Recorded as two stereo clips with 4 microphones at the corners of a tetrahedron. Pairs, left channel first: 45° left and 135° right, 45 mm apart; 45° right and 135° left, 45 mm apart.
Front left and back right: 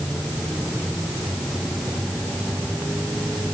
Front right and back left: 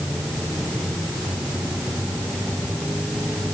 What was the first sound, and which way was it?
Only background noise.